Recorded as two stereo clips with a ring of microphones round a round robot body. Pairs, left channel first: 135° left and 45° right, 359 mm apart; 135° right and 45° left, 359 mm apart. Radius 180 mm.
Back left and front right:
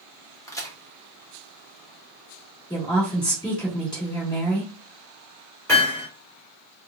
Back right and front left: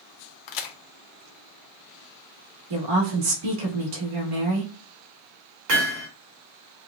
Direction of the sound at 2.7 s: 55° left.